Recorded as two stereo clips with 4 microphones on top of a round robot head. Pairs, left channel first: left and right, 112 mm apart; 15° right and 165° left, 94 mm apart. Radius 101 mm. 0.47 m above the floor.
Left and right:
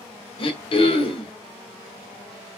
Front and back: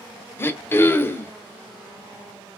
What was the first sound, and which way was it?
Throat clearing, 55° left.